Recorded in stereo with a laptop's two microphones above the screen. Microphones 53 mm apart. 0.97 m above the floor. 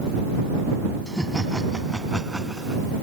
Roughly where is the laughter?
Centre.